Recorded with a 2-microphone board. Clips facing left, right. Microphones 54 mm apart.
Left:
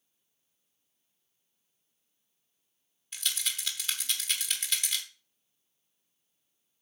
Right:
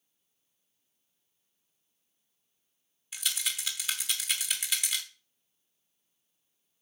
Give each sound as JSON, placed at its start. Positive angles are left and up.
{"t": 3.1, "sound": "a rattle", "side_deg": -5, "distance_m": 1.1}